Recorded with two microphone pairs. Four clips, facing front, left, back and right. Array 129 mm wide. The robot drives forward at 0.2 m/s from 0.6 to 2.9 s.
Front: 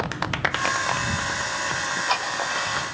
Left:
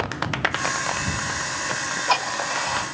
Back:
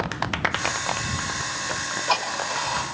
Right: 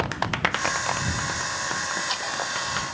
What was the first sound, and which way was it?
Ticking, 140° left.